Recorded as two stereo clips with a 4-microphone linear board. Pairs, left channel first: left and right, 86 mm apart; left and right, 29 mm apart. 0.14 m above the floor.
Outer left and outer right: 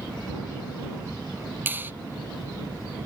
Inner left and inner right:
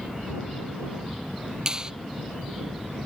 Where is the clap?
25° right (ahead or behind).